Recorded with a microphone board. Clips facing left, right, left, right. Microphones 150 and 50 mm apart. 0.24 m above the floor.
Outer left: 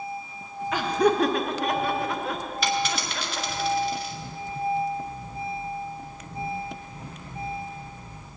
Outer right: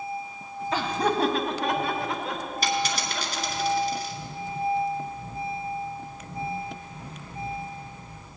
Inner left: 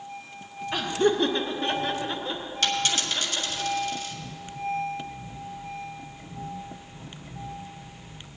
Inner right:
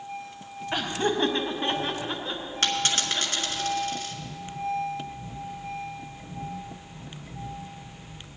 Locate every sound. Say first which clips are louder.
0.7 s laughter: outer left 4 dB, inner left 3 dB; 30° right (ahead or behind), 1.0 m; by 3.6 s 15° right (ahead or behind), 3 m
2.6 s a dropped coin: outer left 1 dB, even; 40° right (ahead or behind), 1.7 m